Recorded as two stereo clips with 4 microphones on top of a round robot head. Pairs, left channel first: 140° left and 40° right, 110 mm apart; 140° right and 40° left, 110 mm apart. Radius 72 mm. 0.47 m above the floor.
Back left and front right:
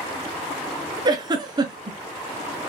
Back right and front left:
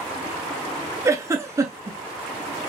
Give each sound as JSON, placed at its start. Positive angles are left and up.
{"t": 1.1, "sound": "a giggle", "azimuth_deg": -10, "distance_m": 0.8}